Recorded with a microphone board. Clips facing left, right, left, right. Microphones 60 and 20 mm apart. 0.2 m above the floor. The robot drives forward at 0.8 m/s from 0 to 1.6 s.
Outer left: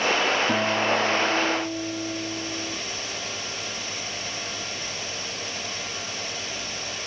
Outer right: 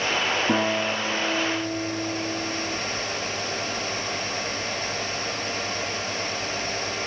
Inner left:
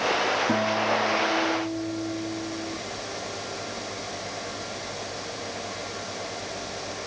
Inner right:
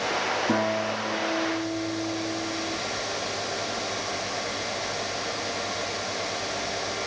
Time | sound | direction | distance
0.5 | a guitar | 25° right (ahead or behind) | 5.5 m